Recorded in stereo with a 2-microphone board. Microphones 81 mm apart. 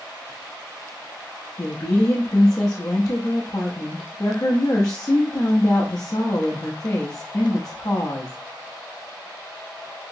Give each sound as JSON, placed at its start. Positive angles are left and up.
{"t": 1.6, "sound": "a woman speaking", "side_deg": 45, "distance_m": 0.6}